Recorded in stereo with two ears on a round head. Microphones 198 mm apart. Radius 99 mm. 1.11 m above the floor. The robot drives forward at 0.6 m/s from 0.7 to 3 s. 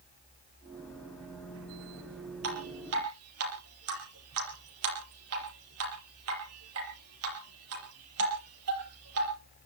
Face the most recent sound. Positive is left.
turn(degrees=-75)  # may be behind; listen again after turning